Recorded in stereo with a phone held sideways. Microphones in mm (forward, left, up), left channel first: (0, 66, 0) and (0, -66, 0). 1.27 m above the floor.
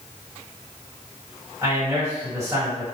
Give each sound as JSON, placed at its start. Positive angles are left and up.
{"t": 1.6, "sound": "a man speaking", "side_deg": -25, "distance_m": 1.4}